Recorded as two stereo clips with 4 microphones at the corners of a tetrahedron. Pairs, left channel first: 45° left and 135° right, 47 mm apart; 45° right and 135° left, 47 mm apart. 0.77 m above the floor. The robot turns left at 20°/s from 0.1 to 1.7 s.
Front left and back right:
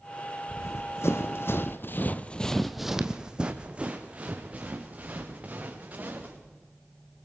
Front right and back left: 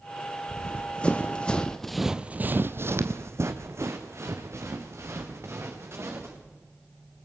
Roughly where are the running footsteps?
Ahead left.